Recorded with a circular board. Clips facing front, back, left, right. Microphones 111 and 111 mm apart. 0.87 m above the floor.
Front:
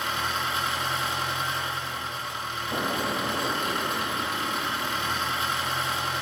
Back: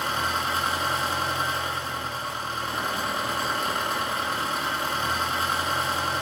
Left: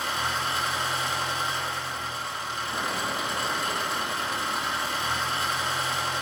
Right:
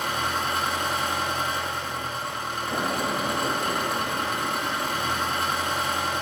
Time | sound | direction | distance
0.0 | an engine running | 130° right | 0.9 m
2.7 | an explosion | 45° right | 0.5 m